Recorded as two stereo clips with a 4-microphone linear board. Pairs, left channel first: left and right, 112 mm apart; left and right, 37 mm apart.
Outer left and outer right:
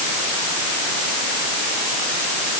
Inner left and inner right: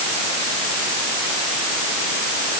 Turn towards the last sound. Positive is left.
No sound to turn to.